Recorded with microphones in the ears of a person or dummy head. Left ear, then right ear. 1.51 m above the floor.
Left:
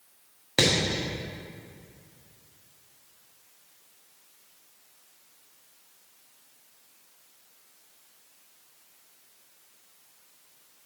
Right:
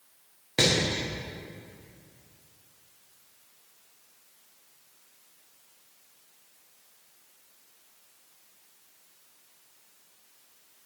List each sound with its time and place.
0.6 s hammering: 20° left (ahead or behind), 1.2 m